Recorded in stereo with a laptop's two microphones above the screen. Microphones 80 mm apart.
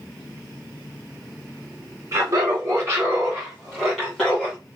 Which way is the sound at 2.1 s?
40° right (ahead or behind).